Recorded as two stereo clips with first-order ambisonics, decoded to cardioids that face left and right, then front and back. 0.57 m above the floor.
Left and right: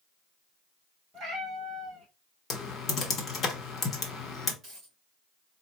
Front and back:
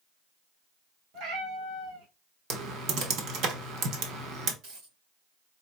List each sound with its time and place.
1.1 s a cat meowing: 150° right, 1.6 m
2.5 s typing on a keyboard: 145° left, 1.0 m
4.6 s a dropped coin: 150° right, 3 m